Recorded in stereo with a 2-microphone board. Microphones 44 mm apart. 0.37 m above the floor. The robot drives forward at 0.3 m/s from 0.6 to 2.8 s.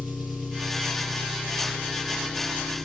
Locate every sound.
0.0 s an engine running: 5° left (ahead or behind), 5.5 m